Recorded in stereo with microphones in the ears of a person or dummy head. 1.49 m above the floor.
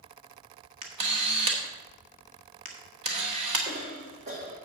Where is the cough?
35° right (ahead or behind), 1.3 m.